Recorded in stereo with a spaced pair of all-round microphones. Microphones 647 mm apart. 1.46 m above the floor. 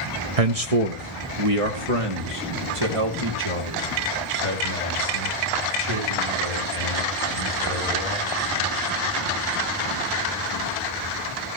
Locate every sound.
0.4 s a man speaking: 60° right (ahead or behind), 0.8 m; by 8.3 s 45° right (ahead or behind), 7.5 m